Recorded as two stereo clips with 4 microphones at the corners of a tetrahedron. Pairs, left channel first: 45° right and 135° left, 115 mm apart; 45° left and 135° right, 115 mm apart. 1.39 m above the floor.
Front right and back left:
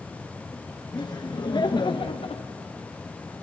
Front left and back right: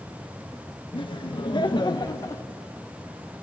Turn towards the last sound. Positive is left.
turn(degrees=-15)